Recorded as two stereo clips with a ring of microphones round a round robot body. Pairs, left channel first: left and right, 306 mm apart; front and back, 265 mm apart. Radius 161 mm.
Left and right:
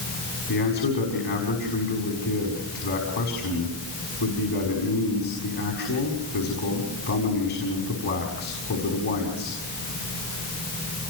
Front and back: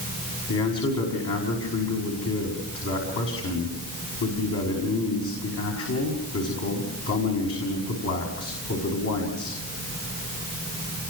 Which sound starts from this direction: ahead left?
A man speaking, at 0.5 s.